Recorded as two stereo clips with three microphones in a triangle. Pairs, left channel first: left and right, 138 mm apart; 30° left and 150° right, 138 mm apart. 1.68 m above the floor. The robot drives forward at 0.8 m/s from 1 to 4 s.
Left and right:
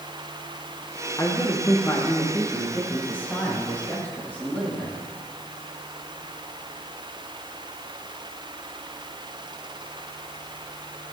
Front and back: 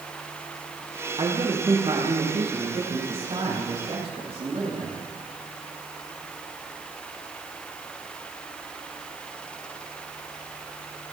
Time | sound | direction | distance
1.2 | a man speaking | 155° left | 2 m